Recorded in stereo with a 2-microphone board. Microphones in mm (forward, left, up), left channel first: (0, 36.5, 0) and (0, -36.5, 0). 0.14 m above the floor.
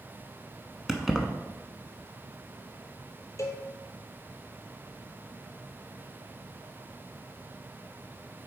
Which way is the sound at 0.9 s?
5° right (ahead or behind).